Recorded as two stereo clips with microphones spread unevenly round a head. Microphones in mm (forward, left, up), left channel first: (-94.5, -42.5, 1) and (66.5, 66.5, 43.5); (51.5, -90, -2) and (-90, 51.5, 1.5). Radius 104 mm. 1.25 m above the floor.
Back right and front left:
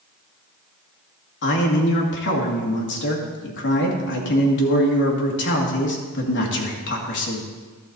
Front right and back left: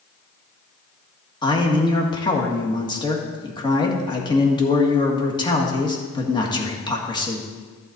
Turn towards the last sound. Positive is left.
turn(degrees=-115)